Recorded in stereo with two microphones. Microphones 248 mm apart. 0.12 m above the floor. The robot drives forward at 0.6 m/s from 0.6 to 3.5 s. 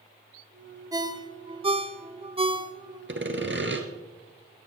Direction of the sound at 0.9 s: 15° right (ahead or behind).